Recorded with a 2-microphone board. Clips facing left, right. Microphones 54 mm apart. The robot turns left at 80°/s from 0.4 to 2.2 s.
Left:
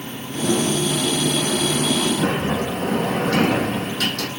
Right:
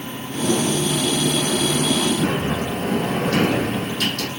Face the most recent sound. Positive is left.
turn(degrees=60)  # may be behind; listen again after turning